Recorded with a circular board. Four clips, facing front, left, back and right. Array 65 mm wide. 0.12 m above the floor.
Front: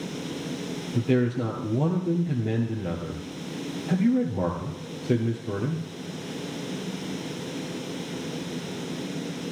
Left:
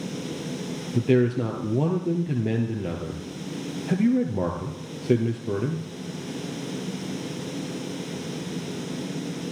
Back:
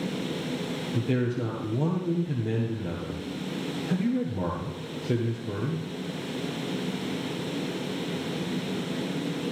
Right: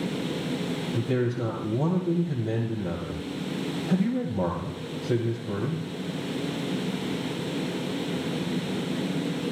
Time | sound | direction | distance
0.9 | a man speaking | 80° left | 2 m